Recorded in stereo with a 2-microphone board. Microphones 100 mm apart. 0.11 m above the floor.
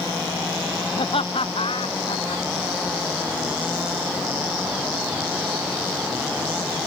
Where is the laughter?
70° left (ahead or behind).